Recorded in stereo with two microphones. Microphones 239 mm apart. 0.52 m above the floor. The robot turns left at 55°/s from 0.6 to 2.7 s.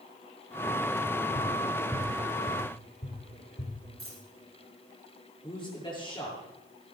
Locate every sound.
1.4 s tapping: 30° right (ahead or behind), 6.5 m; by 3.7 s 45° left (ahead or behind), 6.5 m
4.0 s a dropped coin: 60° right (ahead or behind), 10 m
5.4 s a man speaking: 15° left (ahead or behind), 8 m